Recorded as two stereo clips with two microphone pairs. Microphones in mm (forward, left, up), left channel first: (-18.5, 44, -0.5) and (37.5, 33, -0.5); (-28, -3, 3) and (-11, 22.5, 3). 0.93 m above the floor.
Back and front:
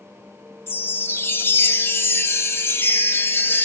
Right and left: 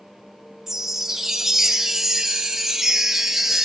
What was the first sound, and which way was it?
A chime, 130° left.